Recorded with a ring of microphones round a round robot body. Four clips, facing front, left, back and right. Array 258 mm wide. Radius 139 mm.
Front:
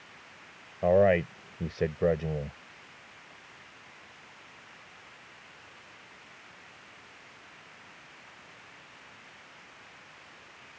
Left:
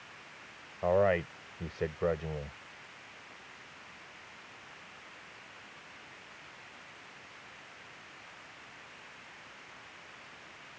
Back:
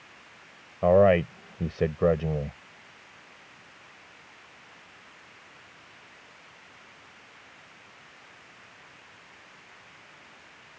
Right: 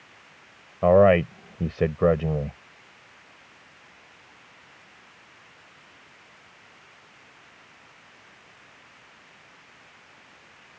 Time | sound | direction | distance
0.8 | a man speaking | 105° right | ?